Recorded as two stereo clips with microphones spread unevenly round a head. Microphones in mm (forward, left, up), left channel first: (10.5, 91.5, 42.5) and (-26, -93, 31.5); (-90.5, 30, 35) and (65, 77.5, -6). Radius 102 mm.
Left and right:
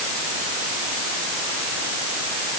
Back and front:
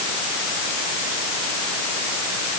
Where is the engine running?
I don't hear an engine running.